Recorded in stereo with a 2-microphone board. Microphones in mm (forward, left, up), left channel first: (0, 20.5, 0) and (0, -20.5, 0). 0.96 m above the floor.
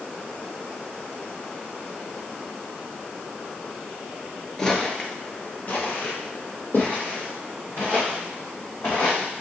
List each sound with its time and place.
4.6 s footsteps: 15° left (ahead or behind), 0.9 m; by 9.2 s 75° left (ahead or behind), 4 m